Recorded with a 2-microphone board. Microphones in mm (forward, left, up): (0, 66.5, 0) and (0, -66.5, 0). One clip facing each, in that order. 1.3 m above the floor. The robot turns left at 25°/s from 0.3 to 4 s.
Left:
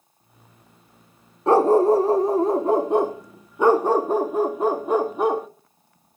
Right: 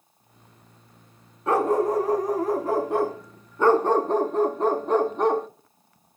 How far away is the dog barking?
About 0.8 m.